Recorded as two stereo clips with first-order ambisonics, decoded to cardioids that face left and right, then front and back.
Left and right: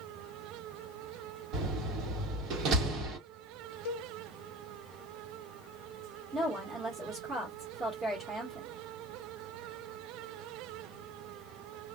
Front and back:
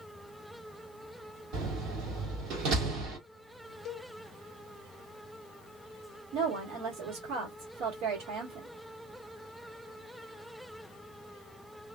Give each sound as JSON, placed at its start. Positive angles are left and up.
{"t": 1.5, "sound": "a door slam", "azimuth_deg": -135, "distance_m": 1.2}
{"t": 3.9, "sound": "a cowbell", "azimuth_deg": 60, "distance_m": 0.6}
{"t": 6.3, "sound": "a woman speaking", "azimuth_deg": -170, "distance_m": 1.4}